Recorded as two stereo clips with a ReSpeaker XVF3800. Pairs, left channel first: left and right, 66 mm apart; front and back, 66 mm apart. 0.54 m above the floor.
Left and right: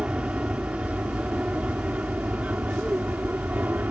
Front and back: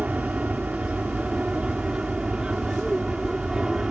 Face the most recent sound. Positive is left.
turn(degrees=-115)